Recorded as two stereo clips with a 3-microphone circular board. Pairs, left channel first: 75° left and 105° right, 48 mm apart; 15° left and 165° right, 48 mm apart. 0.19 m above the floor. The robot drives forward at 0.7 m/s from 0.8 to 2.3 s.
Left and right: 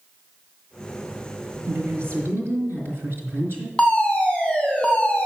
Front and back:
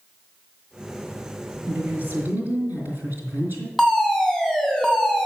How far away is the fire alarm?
About 2.5 m.